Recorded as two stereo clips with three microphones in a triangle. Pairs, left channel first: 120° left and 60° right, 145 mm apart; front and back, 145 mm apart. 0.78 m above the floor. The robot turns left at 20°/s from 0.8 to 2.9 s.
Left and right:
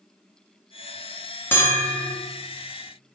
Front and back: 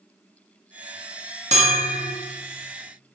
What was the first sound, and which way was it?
A bell, 170° right.